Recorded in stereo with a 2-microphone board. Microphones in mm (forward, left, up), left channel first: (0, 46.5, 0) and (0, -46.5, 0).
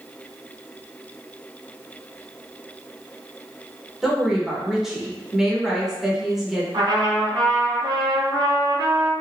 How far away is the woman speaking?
About 0.8 m.